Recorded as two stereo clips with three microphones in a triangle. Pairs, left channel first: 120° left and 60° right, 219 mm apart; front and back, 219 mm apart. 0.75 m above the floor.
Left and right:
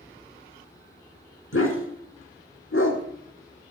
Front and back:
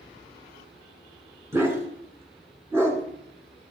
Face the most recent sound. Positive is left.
turn(degrees=100)